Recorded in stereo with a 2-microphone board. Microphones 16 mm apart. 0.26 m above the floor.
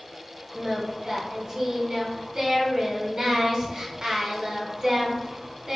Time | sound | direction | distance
0.5 | singing | 40° right (ahead or behind) | 0.8 m